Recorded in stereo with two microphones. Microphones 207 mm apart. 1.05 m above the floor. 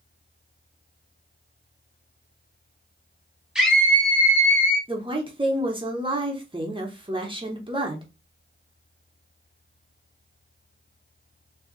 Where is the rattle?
I don't hear a rattle.